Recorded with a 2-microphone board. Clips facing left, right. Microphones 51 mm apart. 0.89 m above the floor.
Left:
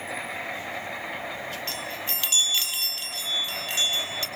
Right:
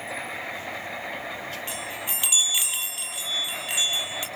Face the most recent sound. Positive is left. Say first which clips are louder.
# even
turn(degrees=-15)  # may be behind; listen again after turning